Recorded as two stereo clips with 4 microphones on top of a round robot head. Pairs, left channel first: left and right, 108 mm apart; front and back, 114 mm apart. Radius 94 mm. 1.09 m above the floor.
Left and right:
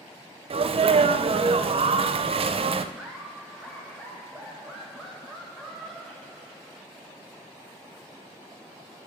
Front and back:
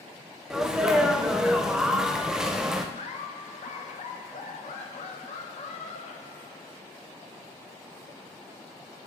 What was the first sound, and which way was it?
A sneeze, 100° right.